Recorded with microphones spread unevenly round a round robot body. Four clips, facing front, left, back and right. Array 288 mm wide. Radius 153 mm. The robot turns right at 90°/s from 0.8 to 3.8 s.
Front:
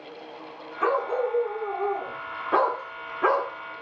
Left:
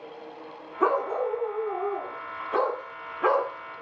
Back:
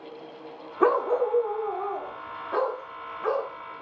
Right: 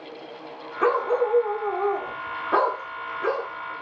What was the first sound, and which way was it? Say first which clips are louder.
A dog barking: right 3 dB, back 2 dB; 160° left.